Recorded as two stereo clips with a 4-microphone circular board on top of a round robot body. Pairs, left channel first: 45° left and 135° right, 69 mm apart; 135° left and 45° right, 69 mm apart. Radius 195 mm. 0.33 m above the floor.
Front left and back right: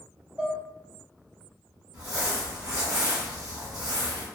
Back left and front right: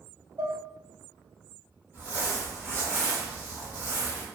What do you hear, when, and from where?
0.4 s dishes clattering: 60° right, 0.9 m
1.9 s crumpling: 110° right, 1.4 m